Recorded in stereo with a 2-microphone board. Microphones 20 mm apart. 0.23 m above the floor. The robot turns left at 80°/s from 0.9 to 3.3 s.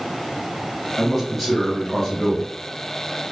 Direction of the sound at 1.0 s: 15° right (ahead or behind).